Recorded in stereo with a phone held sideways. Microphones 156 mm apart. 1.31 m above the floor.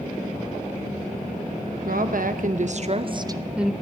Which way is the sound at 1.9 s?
75° right (ahead or behind).